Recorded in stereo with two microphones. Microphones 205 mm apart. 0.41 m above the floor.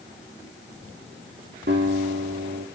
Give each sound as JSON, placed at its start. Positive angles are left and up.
{"t": 1.7, "sound": "a guitar", "side_deg": -60, "distance_m": 5.5}